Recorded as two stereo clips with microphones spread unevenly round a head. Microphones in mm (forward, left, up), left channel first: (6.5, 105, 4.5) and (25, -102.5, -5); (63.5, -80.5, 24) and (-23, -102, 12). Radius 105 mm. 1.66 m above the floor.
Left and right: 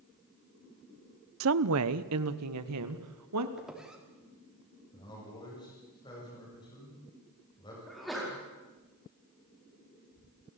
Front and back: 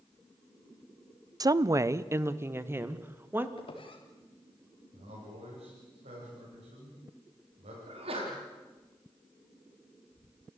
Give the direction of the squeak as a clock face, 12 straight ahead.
12 o'clock.